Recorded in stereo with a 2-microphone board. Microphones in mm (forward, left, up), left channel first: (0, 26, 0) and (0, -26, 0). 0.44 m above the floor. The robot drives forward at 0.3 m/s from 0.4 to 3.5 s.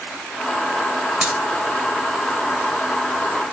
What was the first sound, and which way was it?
A dropped coin, 30° right (ahead or behind).